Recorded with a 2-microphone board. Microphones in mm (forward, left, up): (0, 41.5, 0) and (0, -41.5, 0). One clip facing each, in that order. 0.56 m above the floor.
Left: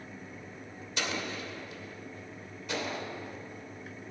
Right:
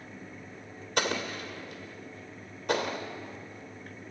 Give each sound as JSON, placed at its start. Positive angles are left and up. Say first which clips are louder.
{"t": 1.0, "sound": "an explosion", "louder": "right 4 dB", "side_deg": -60, "distance_m": 2.5}